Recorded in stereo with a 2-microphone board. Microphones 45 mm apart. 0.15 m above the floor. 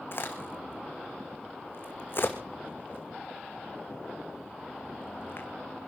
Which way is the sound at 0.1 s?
55° left (ahead or behind).